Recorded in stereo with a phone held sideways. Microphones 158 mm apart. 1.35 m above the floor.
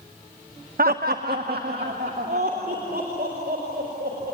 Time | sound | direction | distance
0.8 | laughter | 65° right (ahead or behind) | 0.7 m